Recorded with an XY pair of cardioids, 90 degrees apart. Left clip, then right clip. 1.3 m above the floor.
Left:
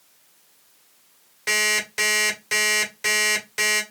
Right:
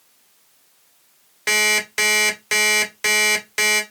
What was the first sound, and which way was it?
An alarm clock, 50° right.